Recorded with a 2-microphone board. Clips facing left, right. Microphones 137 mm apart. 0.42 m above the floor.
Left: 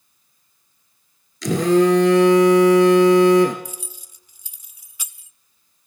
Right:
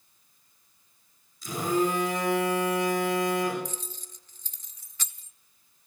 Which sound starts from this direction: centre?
Keys jangling, at 3.6 s.